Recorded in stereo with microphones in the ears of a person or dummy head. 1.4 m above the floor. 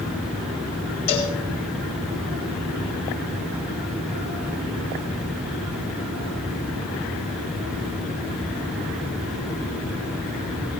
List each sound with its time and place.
1.1 s a cowbell: 40° left (ahead or behind), 3.5 m